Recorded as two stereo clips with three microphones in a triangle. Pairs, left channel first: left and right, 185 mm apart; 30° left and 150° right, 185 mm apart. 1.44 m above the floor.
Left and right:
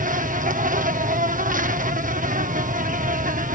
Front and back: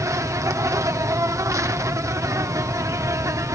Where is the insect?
80° right.